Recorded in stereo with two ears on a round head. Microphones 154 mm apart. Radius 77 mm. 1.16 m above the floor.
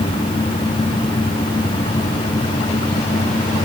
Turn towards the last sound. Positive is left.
No sound to turn to.